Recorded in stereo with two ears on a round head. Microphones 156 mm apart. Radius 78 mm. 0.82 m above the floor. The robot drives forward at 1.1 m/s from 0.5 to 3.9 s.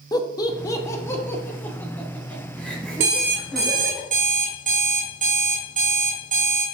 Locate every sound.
0.1 s laughter: 20° left (ahead or behind), 1.2 m; by 4.0 s 5° left (ahead or behind), 4.5 m
3.0 s an alarm clock: 65° right (ahead or behind), 2.5 m; by 6.7 s 50° right (ahead or behind), 3 m